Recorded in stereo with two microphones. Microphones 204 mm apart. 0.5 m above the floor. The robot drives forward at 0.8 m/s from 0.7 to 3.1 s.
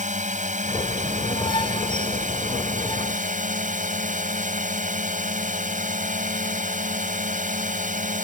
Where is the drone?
40° right (ahead or behind).